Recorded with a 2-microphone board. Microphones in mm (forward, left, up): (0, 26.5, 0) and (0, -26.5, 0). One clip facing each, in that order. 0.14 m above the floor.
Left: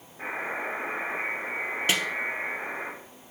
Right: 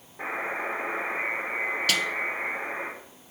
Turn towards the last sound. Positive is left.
turn(degrees=25)  # may be behind; listen again after turning